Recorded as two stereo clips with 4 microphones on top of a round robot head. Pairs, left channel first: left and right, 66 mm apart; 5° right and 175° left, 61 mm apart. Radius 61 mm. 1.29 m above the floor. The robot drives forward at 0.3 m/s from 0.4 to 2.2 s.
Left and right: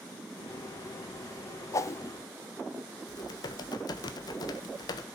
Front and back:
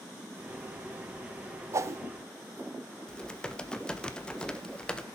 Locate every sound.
1.7 s a whoosh: 130° left, 0.8 m; by 2.0 s 135° left, 0.9 m
3.1 s typing on a keyboard: 70° left, 1.4 m